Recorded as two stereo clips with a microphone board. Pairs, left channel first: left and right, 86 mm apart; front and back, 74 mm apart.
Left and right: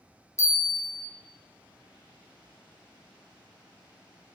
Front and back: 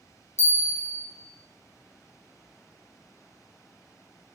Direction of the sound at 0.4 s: 45° left.